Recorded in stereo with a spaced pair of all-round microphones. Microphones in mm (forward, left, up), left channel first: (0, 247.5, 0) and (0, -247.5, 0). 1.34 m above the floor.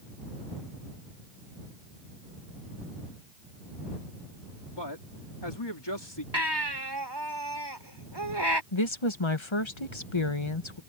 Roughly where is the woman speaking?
Left.